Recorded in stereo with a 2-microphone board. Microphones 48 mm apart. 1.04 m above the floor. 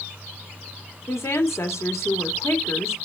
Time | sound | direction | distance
1.1 | a woman speaking | 80° left | 3 m